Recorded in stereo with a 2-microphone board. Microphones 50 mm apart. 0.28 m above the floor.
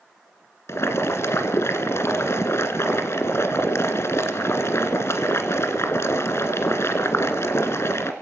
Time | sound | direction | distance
0.7 | boiling | 70° left (ahead or behind) | 2 m